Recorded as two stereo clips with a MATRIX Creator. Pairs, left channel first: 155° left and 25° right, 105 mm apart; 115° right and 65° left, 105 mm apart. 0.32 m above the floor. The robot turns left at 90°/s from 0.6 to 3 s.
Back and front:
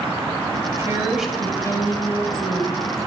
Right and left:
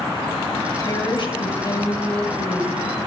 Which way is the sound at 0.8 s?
70° right.